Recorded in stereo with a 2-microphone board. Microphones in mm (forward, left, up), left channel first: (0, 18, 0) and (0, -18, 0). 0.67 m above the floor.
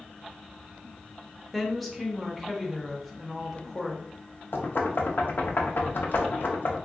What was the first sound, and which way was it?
A woman speaking, centre (ahead or behind).